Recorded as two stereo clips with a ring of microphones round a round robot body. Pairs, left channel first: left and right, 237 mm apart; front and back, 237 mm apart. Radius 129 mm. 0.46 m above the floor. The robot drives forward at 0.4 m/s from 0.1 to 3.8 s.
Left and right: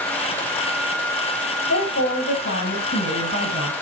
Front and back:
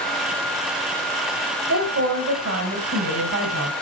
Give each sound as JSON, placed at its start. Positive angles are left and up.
{"t": 1.7, "sound": "a woman speaking", "azimuth_deg": 140, "distance_m": 2.5}